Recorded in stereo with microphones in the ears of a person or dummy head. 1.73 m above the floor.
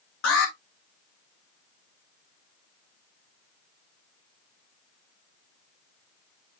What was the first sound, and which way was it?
An alarm, 65° left (ahead or behind).